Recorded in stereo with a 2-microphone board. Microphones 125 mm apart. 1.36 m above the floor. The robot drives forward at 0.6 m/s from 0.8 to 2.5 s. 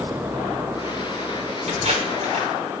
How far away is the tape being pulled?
About 3 m.